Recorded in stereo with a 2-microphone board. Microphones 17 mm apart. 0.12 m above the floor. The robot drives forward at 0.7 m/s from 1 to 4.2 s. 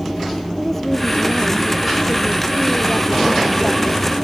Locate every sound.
0.6 s a woman speaking: 20° left (ahead or behind); by 4.1 s 30° left (ahead or behind)